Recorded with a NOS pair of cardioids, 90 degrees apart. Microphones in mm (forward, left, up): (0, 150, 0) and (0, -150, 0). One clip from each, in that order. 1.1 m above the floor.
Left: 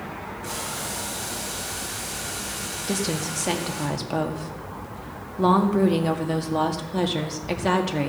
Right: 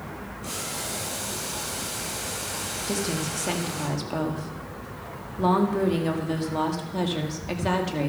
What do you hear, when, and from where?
0.4 s boiling: 5° right, 7 m
2.9 s a woman speaking: 20° left, 1.9 m